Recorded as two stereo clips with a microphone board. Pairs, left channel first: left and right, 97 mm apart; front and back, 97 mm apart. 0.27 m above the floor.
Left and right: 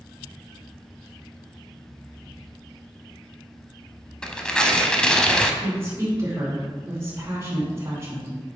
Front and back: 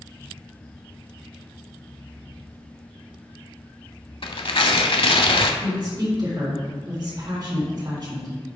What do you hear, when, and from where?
4.2 s tearing paper: 10° left, 0.6 m
5.6 s a woman speaking: 150° right, 2.5 m